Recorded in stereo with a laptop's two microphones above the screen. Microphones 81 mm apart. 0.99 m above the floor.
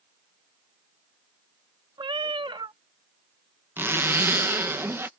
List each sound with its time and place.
2.0 s a cat meowing: 75° right (ahead or behind)
3.8 s a zipper: 30° right (ahead or behind)